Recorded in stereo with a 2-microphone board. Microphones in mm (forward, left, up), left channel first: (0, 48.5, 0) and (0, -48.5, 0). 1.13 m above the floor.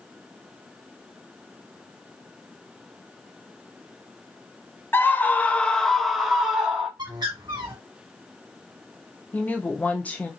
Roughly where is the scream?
Left.